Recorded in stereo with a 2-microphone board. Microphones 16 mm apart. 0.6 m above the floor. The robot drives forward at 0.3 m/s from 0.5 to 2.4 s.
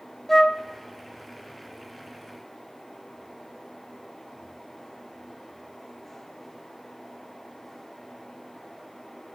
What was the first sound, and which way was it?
A flute, 25° left (ahead or behind).